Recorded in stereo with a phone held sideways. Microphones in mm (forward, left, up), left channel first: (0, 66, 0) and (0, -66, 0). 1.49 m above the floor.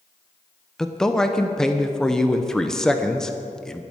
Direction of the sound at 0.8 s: 5° left (ahead or behind).